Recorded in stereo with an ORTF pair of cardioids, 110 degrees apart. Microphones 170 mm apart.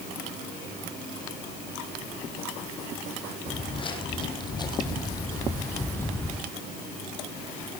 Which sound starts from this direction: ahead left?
Footsteps, at 3.5 s.